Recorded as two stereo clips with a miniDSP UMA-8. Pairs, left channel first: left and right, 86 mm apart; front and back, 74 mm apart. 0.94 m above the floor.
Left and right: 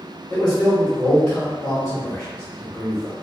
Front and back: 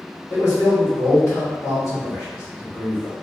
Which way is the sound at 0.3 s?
15° left.